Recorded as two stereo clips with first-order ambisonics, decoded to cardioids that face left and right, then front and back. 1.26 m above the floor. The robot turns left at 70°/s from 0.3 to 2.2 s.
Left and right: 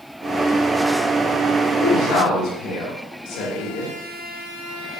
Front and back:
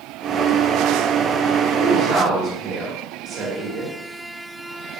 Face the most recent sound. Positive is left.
turn(degrees=130)